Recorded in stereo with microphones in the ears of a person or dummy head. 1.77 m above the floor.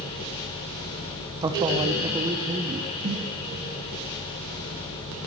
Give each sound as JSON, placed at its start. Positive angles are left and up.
{"t": 1.4, "sound": "a man speaking", "side_deg": -20, "distance_m": 0.7}
{"t": 3.0, "sound": "a snare drum", "side_deg": -35, "distance_m": 1.3}